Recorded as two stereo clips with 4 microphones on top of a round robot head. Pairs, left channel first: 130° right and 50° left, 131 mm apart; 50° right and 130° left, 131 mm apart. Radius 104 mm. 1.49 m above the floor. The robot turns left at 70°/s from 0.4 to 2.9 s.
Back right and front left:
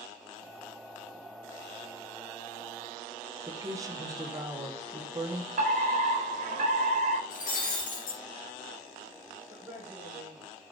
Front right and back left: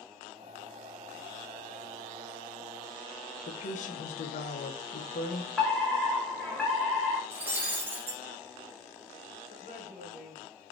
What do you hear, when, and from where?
3.5 s a woman speaking: 20° right, 1.2 m
5.6 s a fire alarm: 35° left, 3 m
7.3 s breaking glass: 155° right, 2 m
9.5 s a woman speaking: 35° right, 3.5 m